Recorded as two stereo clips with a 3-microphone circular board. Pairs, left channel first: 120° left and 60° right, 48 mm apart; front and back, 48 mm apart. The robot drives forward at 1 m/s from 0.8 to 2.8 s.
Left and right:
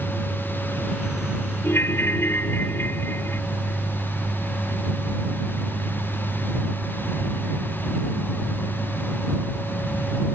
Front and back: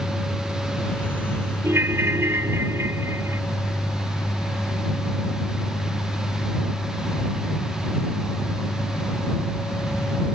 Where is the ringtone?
155° left; by 3.4 s 160° left.